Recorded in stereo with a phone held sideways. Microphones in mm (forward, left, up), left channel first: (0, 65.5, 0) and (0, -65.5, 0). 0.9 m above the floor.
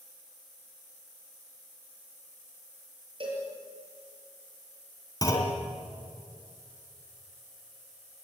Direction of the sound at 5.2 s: 25° left (ahead or behind).